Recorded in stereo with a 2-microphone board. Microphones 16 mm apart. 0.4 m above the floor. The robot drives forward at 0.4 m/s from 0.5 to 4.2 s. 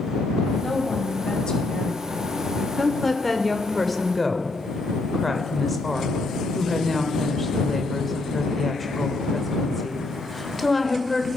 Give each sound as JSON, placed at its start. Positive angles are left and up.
{"t": 0.6, "sound": "a woman speaking", "side_deg": 45, "distance_m": 2.5}
{"t": 2.8, "sound": "a woman speaking", "side_deg": 10, "distance_m": 1.2}